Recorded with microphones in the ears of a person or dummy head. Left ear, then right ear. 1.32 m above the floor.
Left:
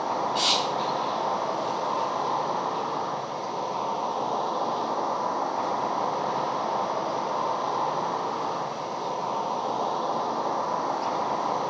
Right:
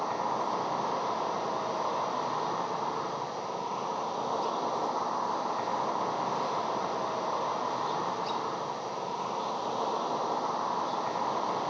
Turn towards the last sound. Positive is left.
turn(degrees=-15)  # may be behind; listen again after turning